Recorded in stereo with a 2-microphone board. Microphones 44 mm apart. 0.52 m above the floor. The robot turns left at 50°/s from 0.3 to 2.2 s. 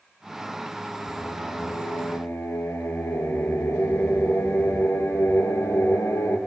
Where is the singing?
155° left, 4 m; by 6.4 s 95° left, 4 m.